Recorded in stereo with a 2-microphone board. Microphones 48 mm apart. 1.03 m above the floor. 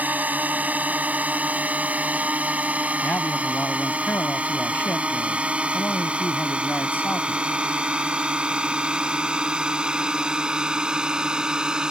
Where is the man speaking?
45° left (ahead or behind).